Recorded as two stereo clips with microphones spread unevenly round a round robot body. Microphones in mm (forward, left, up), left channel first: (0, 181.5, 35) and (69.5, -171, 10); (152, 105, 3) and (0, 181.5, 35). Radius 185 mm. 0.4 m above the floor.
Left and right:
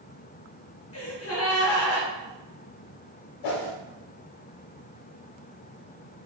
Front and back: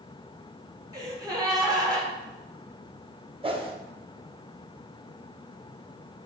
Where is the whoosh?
85° left, 0.8 m.